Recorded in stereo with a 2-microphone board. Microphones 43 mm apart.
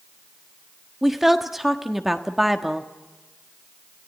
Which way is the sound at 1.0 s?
10° right (ahead or behind).